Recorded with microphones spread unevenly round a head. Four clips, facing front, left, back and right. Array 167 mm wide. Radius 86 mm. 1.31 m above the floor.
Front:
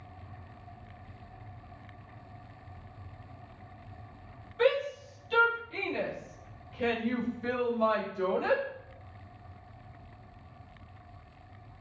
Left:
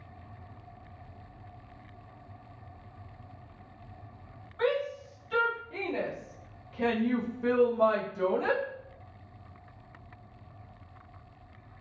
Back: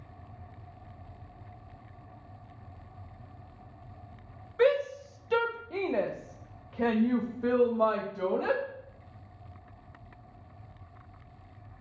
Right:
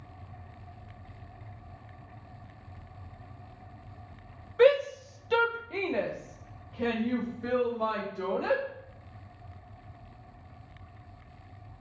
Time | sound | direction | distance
4.6 | a shout | 115° right | 1.3 m